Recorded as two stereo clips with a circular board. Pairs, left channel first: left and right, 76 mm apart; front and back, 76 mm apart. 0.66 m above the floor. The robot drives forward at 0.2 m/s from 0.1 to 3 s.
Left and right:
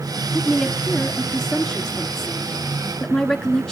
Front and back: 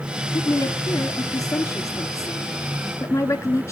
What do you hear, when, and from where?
0.3 s a woman speaking: 5° left, 1.7 m